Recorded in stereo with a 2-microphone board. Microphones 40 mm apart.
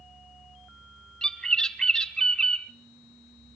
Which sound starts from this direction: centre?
A bird, at 1.2 s.